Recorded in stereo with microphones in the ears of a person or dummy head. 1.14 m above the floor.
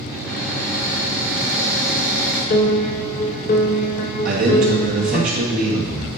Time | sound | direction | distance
0.1 | a cupboard door | 5° right (ahead or behind) | 1.3 m
2.5 | a piano | 40° left (ahead or behind) | 0.6 m
4.2 | a man speaking | 50° right (ahead or behind) | 1.4 m